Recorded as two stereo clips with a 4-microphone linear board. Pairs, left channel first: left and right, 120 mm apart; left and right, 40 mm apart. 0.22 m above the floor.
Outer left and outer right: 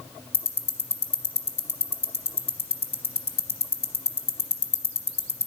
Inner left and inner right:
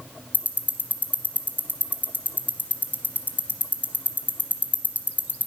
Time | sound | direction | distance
0.3 | ticking | 55° left (ahead or behind) | 1.1 m